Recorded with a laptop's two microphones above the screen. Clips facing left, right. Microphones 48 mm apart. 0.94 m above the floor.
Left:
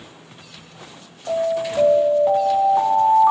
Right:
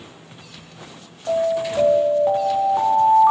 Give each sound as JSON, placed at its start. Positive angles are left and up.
{"t": 1.3, "sound": "an alarm", "side_deg": -5, "distance_m": 1.4}